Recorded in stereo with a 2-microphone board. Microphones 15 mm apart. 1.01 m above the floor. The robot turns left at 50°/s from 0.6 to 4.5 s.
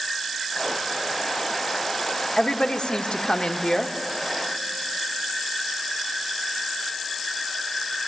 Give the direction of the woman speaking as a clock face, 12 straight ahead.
8 o'clock.